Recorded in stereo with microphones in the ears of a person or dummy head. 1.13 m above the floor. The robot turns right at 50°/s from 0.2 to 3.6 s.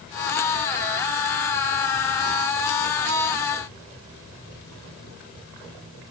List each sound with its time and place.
Only background noise.